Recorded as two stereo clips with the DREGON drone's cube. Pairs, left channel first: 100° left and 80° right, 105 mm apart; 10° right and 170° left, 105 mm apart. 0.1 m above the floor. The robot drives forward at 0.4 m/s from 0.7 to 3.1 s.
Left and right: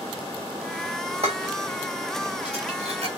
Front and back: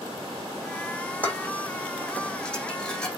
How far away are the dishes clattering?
About 4 m.